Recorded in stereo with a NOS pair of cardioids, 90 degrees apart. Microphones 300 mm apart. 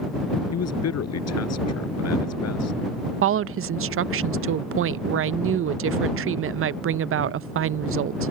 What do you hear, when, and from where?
0.5 s a man speaking: 55° left
3.2 s a woman speaking: 45° right